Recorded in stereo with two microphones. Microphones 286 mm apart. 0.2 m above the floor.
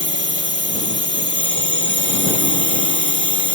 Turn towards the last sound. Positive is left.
turn(degrees=-40)  # may be behind; listen again after turning